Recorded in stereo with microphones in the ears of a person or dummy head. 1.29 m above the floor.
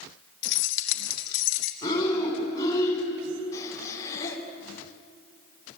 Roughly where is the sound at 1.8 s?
Left.